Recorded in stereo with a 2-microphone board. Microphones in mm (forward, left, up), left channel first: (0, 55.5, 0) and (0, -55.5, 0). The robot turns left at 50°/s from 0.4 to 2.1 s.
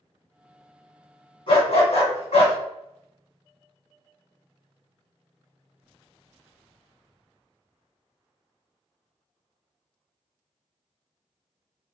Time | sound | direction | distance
1.5 | a dog barking | 120° left | 1.5 m